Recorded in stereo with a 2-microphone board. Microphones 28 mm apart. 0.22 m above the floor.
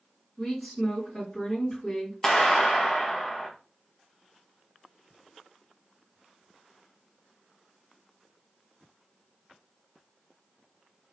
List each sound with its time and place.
0.4 s a woman speaking: 20° left (ahead or behind), 2 m
2.2 s a clap: 20° left (ahead or behind), 1.1 m